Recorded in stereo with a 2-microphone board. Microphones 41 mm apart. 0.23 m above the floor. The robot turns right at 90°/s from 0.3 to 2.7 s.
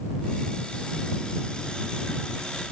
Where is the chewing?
No chewing in this recording.